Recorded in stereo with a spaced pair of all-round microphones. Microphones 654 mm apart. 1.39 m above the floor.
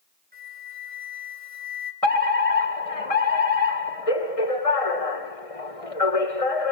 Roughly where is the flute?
Centre.